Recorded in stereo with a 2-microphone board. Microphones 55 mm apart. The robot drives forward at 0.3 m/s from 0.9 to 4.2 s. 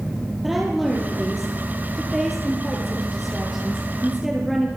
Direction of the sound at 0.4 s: 5° right (ahead or behind).